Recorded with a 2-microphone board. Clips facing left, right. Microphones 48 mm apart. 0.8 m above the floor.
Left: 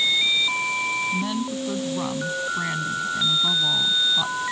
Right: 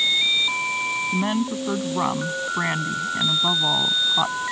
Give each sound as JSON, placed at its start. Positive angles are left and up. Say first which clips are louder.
{"t": 1.1, "sound": "a woman speaking", "louder": "right 3 dB", "side_deg": -35}